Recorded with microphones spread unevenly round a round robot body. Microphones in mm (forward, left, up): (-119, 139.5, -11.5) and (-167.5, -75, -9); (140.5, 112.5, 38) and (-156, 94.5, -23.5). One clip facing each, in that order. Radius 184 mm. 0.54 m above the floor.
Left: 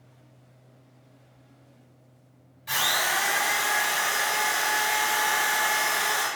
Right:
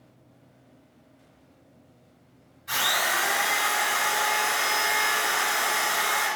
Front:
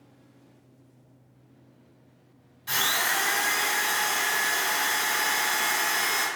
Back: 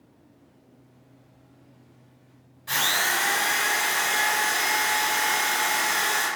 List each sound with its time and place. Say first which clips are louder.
2.7 s a drill: right 1 dB, back 2 dB; 50° left, 1.4 m